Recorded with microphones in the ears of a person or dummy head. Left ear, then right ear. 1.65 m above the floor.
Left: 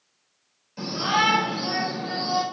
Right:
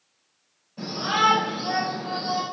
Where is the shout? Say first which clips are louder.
Even; 65° left (ahead or behind), 4 m; by 2.4 s 50° left (ahead or behind), 4 m.